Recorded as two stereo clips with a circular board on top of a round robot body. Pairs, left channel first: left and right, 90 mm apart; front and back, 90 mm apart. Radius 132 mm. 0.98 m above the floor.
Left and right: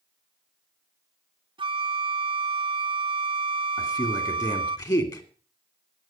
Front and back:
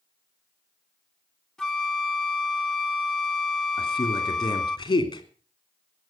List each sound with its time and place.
1.6 s a flute: 85° right, 0.8 m
3.8 s a man speaking: 40° left, 3 m